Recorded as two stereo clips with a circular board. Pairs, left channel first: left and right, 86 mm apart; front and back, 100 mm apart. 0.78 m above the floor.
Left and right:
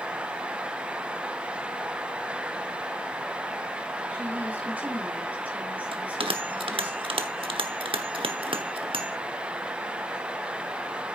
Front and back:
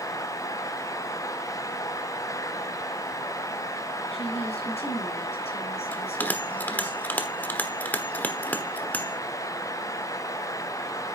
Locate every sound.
4.1 s a woman speaking: 15° right, 7.5 m
5.9 s a bell: 75° right, 1.1 m